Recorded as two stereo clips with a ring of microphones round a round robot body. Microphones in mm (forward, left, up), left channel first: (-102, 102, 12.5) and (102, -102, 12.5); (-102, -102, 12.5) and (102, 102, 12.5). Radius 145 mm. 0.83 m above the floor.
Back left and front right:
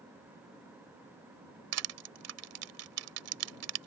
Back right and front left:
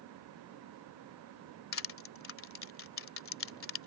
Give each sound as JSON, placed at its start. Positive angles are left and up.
{"t": 1.7, "sound": "crushing", "azimuth_deg": -85}